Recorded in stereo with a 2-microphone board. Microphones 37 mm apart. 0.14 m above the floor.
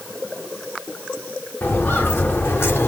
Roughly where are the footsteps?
Left.